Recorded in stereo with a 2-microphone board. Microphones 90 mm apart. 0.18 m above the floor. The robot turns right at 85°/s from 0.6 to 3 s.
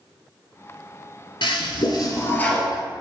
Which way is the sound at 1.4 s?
75° left.